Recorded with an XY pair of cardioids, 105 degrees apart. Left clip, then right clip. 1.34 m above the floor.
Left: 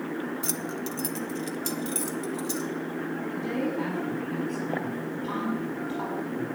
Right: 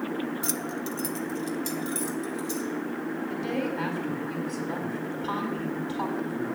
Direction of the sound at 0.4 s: 5° right.